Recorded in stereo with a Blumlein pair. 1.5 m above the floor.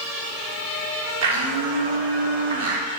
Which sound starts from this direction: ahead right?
A blender, at 1.2 s.